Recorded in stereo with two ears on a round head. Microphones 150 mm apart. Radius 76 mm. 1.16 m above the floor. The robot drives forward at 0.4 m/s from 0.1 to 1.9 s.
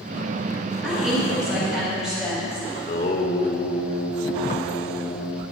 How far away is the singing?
About 1.1 m.